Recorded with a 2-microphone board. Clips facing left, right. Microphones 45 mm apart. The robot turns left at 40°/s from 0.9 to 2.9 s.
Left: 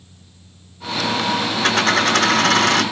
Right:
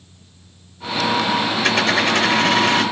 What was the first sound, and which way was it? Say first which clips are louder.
A dropped coin: left 2 dB; 130° left.